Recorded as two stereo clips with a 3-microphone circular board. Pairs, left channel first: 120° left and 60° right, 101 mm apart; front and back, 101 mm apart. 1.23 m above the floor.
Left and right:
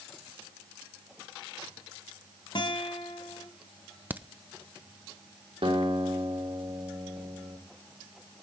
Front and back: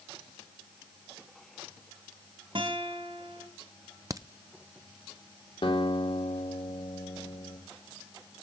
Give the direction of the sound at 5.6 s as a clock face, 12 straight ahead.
1 o'clock.